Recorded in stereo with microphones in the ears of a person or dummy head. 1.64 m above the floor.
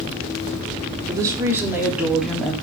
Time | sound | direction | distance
1.1 | a woman speaking | 20° right (ahead or behind) | 4 m